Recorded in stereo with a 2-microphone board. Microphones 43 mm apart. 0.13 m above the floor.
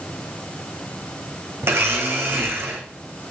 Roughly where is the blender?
Right.